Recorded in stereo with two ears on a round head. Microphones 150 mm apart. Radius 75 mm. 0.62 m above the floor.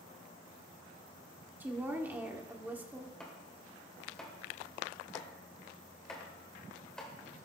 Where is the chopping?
5° left (ahead or behind), 2.5 m.